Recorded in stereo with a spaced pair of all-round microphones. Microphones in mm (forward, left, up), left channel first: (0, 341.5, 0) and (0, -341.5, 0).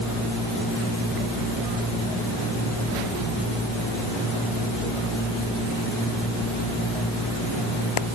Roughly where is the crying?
No crying in this recording.